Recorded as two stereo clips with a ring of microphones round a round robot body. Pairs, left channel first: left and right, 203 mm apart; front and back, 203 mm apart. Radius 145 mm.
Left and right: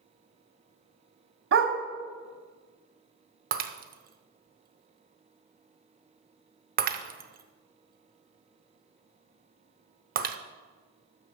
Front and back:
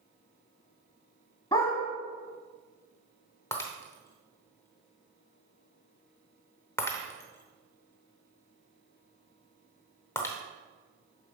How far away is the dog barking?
About 1.3 m.